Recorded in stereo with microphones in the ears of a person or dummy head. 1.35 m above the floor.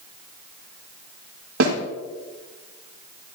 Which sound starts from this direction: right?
A snare drum, at 1.6 s.